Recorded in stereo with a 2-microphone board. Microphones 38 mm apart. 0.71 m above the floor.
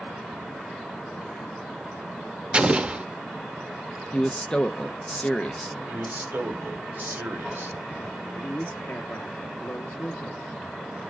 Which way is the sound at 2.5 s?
25° right (ahead or behind).